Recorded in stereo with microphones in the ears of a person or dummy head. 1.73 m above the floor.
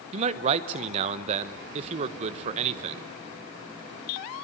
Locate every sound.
0.1 s a man speaking: 35° right (ahead or behind), 1.3 m